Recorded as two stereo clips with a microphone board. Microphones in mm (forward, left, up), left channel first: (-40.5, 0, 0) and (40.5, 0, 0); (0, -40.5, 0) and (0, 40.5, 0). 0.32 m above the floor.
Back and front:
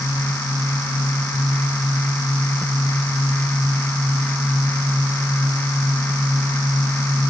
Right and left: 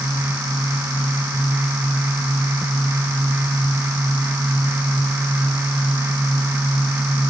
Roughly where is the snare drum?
I don't hear a snare drum.